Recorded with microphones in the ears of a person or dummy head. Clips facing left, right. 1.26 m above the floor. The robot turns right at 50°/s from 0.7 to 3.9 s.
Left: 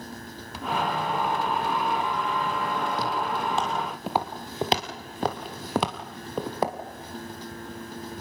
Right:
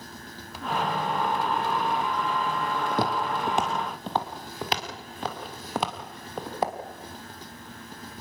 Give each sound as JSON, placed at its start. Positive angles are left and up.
{"t": 2.9, "sound": "footsteps", "side_deg": -55, "distance_m": 3.0}